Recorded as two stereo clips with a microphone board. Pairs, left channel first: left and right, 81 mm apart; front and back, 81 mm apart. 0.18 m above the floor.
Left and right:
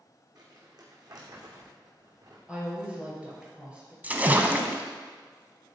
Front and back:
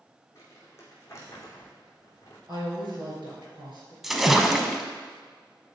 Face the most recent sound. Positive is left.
turn(degrees=-100)